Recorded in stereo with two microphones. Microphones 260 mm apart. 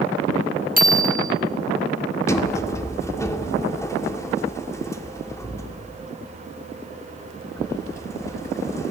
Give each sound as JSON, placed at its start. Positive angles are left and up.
{"t": 0.8, "sound": "a bicycle bell", "side_deg": -35, "distance_m": 3.0}
{"t": 2.3, "sound": "a sliding door", "side_deg": 10, "distance_m": 1.6}